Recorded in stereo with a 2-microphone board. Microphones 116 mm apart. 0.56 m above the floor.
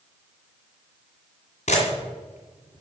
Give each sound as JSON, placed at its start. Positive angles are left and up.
{"t": 1.7, "sound": "a camera shutter", "side_deg": 70, "distance_m": 1.8}